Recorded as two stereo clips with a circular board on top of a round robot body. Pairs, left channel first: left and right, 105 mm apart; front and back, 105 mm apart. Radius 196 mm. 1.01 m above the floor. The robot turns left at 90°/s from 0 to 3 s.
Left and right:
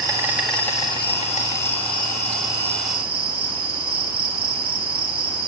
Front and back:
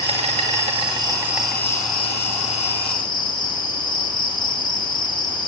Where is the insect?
140° right, 2.5 m; by 5.5 s 50° right, 2.5 m.